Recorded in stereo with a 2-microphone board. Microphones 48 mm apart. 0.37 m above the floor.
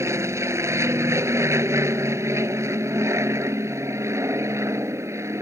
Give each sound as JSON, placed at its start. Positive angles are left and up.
{"t": 0.0, "sound": "an aircraft", "side_deg": -75}